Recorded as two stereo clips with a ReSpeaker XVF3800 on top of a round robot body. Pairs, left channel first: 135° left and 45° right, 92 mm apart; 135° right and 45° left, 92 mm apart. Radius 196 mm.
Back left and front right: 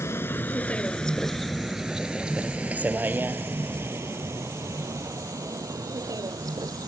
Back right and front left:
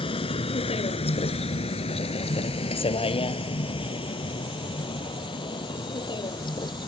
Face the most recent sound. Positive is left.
turn(degrees=-95)